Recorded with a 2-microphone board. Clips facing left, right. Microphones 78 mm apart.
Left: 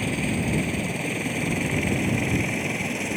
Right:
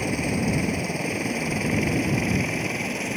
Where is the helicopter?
10° right (ahead or behind); by 3.2 s centre (ahead or behind).